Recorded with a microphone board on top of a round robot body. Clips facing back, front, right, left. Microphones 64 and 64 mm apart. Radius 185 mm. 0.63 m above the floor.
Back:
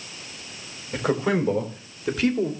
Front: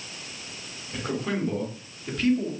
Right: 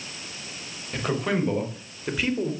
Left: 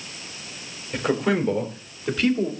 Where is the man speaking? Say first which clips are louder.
Back 6 dB, left 4 dB; 175° left, 5 m; by 2.5 s 170° right, 3.5 m.